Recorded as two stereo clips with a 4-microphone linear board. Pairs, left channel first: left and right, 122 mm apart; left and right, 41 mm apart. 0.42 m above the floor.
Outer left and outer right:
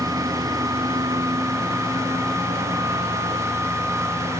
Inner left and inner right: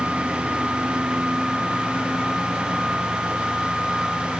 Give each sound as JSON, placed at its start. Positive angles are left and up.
{"t": 0.0, "sound": "a lawn mower", "side_deg": -35}